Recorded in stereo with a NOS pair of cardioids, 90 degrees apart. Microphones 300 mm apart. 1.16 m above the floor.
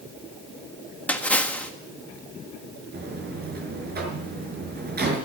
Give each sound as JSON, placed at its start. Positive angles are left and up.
{"t": 1.1, "sound": "a splash", "azimuth_deg": 5, "distance_m": 1.5}
{"t": 2.9, "sound": "a buzzer", "azimuth_deg": -35, "distance_m": 5.0}